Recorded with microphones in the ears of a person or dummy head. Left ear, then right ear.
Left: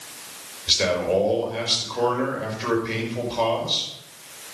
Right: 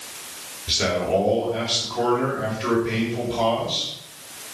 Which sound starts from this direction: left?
A man speaking, at 0.7 s.